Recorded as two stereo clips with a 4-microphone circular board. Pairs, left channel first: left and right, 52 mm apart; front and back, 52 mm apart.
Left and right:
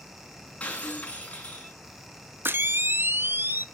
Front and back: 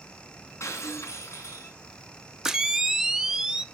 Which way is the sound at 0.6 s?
30° left.